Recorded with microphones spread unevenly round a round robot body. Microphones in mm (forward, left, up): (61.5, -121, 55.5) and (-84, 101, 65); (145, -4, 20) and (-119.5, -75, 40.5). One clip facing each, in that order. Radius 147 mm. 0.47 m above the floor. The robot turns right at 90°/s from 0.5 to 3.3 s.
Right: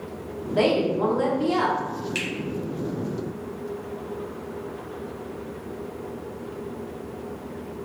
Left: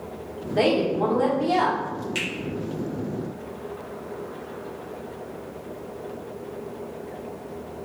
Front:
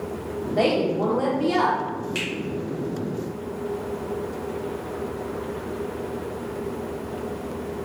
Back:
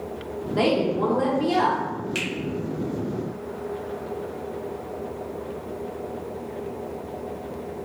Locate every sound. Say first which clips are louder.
0.6 s a woman speaking: even, even; 115° right, 0.7 m; by 1.8 s 5° right, 0.7 m
2.1 s a finger snap: even, even; 105° right, 1.1 m; by 2.3 s 95° right, 1.1 m